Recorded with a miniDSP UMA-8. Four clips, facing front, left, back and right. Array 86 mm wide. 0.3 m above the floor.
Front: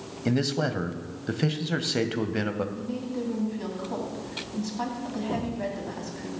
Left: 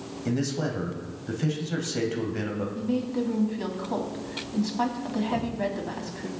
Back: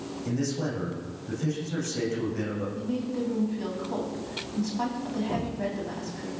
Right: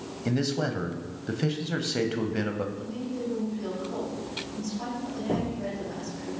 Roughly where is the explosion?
Right.